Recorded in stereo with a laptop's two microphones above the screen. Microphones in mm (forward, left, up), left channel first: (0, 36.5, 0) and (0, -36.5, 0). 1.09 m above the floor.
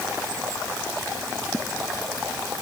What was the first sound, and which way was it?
Only background noise.